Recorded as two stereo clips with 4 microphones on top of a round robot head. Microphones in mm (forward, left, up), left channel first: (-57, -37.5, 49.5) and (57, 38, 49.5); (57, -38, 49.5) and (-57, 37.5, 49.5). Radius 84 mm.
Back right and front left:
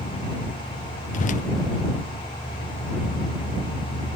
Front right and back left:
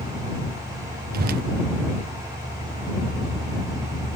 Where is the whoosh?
175° left.